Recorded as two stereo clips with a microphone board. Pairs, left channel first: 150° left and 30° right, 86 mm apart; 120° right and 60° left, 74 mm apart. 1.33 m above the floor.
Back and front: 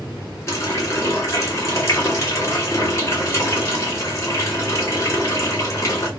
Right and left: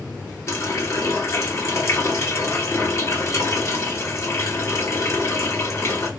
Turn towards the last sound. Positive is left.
turn(degrees=-165)